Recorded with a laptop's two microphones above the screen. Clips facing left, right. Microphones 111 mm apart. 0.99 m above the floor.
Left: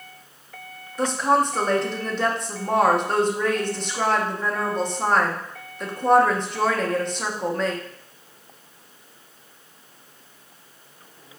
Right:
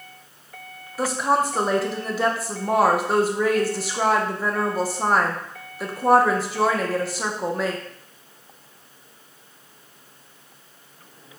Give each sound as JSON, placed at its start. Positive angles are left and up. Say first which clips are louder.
{"t": 1.0, "sound": "a woman speaking", "louder": "left 1 dB", "side_deg": -5, "distance_m": 0.6}